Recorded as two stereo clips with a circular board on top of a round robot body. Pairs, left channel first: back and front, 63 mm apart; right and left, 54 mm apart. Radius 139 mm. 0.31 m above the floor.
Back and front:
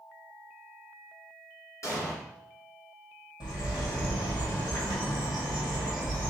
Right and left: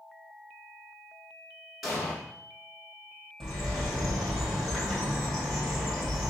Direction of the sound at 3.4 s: Straight behind.